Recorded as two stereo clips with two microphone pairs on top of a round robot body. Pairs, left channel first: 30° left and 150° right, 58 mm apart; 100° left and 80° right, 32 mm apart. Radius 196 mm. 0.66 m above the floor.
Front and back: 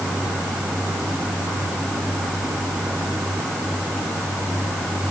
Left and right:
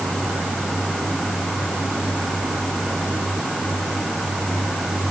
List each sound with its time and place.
Only background noise.